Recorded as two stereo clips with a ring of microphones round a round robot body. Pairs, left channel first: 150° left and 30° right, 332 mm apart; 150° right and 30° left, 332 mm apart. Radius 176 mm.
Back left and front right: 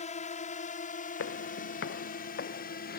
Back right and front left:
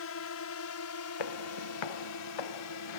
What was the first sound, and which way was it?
A drone, 155° right.